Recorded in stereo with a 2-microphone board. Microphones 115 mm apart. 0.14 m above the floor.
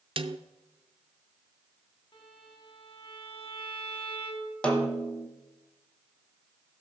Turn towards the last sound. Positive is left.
turn(degrees=10)  # may be behind; listen again after turning